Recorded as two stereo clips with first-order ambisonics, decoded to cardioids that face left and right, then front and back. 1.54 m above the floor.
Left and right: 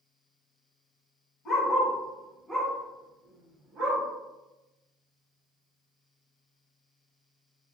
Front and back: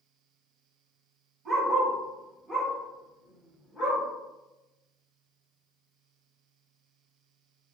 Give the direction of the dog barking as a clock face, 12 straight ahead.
8 o'clock.